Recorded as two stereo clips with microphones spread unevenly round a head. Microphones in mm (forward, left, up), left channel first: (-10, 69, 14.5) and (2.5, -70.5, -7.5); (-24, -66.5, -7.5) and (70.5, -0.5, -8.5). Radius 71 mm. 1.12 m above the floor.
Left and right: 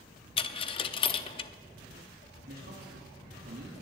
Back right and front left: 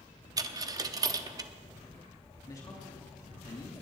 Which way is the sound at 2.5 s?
85° right.